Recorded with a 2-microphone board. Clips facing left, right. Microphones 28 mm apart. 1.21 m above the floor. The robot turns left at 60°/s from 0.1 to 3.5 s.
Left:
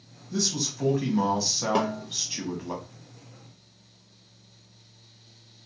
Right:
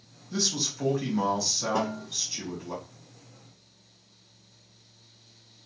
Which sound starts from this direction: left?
A snare drum, at 1.8 s.